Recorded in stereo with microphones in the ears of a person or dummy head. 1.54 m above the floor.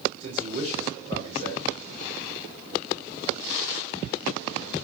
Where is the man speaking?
40° right (ahead or behind), 6 m.